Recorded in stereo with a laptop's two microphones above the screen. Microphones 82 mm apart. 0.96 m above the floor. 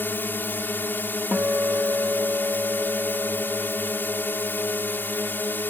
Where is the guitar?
15° right (ahead or behind).